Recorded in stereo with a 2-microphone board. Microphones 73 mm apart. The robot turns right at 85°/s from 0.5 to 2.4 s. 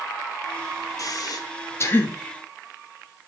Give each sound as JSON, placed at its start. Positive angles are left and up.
{"t": 1.0, "sound": "breathing", "side_deg": 50, "distance_m": 1.3}